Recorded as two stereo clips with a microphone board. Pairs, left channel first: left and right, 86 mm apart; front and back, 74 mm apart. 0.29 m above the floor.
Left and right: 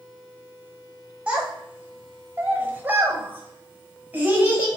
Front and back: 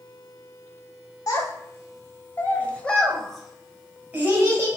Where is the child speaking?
20° right, 1.5 m; by 4.8 s 150° right, 1.2 m.